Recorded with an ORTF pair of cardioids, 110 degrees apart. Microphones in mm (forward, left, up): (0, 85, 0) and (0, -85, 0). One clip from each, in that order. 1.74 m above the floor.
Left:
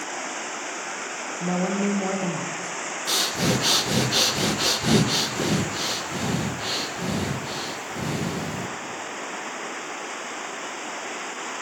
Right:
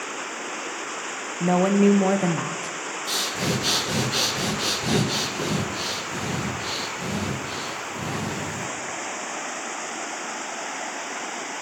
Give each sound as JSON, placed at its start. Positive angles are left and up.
{"t": 1.4, "sound": "a woman speaking", "azimuth_deg": -30, "distance_m": 0.7}
{"t": 3.1, "sound": "breathing", "azimuth_deg": 20, "distance_m": 0.9}